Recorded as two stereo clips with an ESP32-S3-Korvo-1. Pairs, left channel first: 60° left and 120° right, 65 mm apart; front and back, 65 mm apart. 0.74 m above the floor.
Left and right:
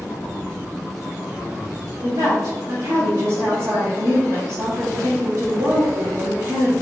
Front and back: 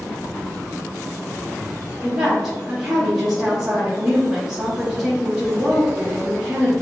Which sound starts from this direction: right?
A woman speaking, at 2.0 s.